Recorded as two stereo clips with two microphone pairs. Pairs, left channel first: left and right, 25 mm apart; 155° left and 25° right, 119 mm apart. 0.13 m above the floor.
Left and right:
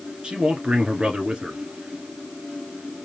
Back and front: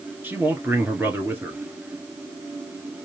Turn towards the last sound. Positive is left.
turn(degrees=-90)